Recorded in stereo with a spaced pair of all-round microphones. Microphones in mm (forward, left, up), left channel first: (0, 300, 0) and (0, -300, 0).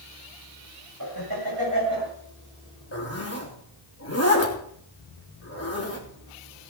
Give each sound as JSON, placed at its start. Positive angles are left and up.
{"t": 1.0, "sound": "laughter", "side_deg": -35, "distance_m": 6.0}
{"t": 2.9, "sound": "a zipper", "side_deg": 25, "distance_m": 3.5}